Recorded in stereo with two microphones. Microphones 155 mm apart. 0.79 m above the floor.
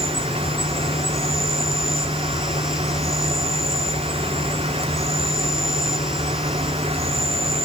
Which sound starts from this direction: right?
An insect, at 0.0 s.